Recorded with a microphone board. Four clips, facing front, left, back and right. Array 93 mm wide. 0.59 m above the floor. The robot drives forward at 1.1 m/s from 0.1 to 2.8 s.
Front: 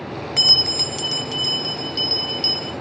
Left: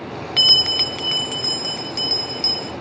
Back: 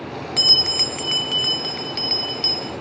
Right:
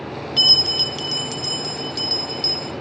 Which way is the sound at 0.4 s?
70° left.